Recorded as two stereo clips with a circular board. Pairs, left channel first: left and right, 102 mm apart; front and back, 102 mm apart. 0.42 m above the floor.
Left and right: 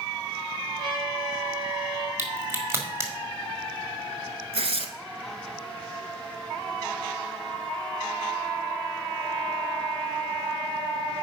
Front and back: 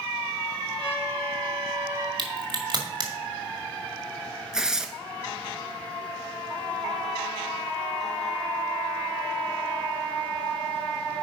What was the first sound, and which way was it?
A trumpet, 140° right.